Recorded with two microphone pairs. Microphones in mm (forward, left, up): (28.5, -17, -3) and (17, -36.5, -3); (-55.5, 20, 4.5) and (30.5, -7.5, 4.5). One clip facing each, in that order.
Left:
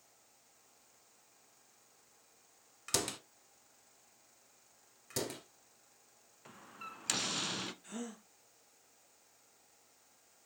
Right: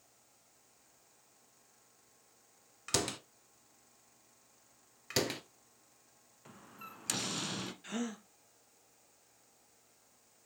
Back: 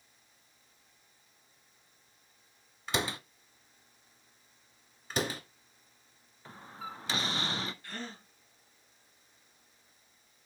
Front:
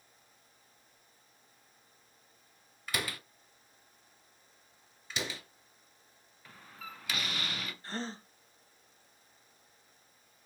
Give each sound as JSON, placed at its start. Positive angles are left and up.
{"t": 2.9, "sound": "a door slam", "azimuth_deg": 170, "distance_m": 0.8}
{"t": 5.1, "sound": "a door slam", "azimuth_deg": -155, "distance_m": 1.5}
{"t": 6.5, "sound": "a door slam", "azimuth_deg": 130, "distance_m": 0.9}
{"t": 7.8, "sound": "a gasp", "azimuth_deg": -75, "distance_m": 1.4}